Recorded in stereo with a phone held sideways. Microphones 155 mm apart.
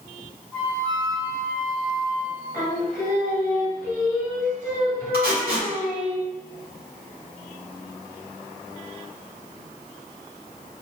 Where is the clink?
I don't hear a clink.